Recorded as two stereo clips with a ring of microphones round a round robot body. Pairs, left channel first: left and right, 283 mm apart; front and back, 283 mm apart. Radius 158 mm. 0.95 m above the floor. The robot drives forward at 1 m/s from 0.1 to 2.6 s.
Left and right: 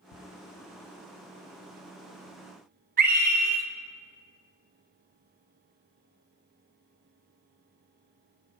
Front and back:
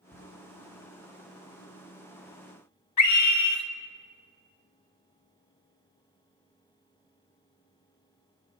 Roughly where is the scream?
Ahead right.